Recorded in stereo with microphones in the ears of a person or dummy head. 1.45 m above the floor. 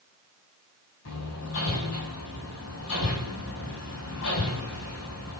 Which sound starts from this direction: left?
Hammering, at 1.1 s.